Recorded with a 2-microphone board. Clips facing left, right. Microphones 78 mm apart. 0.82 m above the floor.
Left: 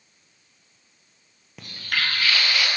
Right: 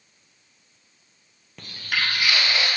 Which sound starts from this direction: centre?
Footsteps, at 1.6 s.